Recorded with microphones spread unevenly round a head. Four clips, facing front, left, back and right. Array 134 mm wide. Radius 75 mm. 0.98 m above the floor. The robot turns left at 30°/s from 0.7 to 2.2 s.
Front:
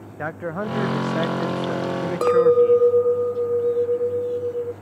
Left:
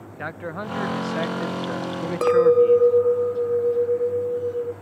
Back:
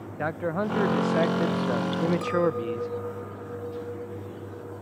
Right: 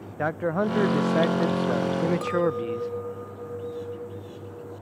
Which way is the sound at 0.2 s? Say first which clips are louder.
Right 7 dB, even; 100° right.